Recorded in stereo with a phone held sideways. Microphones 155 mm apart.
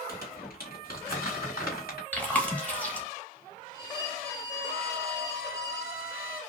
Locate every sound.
0.1 s crumpling: 70° left (ahead or behind), 1.9 m
2.1 s chewing: 10° left (ahead or behind), 0.9 m
3.7 s a violin: 85° left, 1.3 m